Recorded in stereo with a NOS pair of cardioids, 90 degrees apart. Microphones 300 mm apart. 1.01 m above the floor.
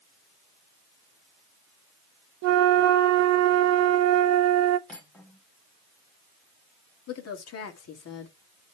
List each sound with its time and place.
2.4 s a flute: 65° right, 0.5 m
4.9 s cutlery clinking: 5° left, 2 m
7.1 s a woman speaking: 55° left, 1.9 m